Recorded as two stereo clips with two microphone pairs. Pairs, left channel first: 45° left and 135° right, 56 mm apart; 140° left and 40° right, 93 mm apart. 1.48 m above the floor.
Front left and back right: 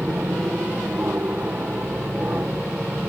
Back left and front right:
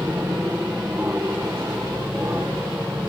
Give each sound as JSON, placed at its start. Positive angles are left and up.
{"t": 0.0, "sound": "an aircraft", "azimuth_deg": -95}